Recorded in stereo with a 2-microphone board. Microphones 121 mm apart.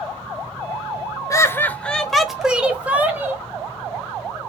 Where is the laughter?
25° left (ahead or behind), 0.9 m; by 3.4 s 15° right (ahead or behind), 2 m.